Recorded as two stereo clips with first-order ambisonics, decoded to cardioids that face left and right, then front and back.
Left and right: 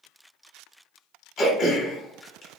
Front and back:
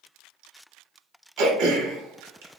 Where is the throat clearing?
155° left, 0.8 m.